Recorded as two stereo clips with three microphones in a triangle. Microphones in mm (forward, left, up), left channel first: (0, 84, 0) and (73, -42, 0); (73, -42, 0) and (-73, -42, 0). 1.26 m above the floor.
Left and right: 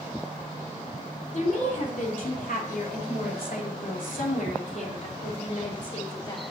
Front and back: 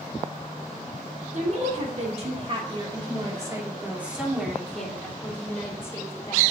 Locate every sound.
1.3 s a woman speaking: 150° left, 3.5 m; by 6.4 s 65° left, 4 m